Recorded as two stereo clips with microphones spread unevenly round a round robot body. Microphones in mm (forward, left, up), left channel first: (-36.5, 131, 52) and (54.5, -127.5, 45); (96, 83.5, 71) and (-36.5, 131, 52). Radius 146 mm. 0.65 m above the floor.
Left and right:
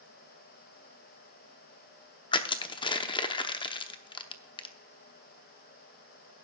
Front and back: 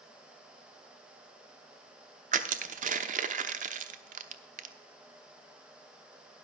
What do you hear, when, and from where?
2.3 s crushing: 175° right, 0.8 m